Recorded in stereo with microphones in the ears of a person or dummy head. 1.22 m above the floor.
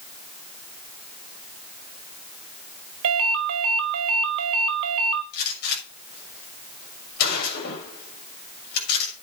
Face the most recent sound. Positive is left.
turn(degrees=55)  # may be behind; listen again after turning